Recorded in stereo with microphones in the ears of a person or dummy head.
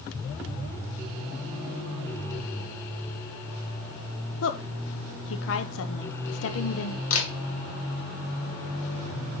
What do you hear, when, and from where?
4.4 s a woman speaking: 75° left (ahead or behind), 1.0 m
7.1 s a camera shutter: 80° left, 2.5 m